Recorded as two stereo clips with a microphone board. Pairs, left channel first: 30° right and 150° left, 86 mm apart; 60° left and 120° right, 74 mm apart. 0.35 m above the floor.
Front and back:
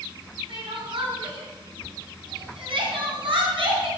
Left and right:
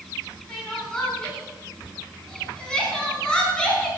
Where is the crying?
140° left, 3.5 m.